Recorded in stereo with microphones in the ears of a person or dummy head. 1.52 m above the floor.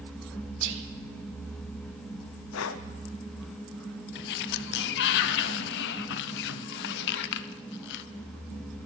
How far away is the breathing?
About 0.6 m.